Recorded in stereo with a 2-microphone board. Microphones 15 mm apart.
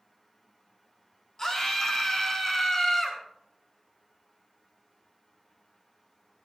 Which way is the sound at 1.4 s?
25° left (ahead or behind).